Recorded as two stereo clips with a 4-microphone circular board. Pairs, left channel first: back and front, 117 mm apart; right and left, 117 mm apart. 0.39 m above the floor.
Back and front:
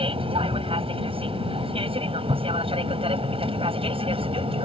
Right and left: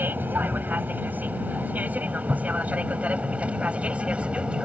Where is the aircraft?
20° left; by 4.7 s 10° left.